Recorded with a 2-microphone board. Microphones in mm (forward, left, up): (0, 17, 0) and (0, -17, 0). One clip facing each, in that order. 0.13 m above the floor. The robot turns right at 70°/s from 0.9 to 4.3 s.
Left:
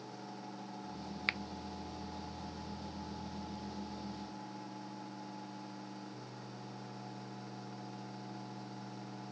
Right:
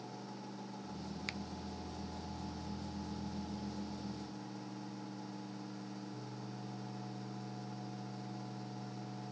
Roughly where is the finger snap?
Left.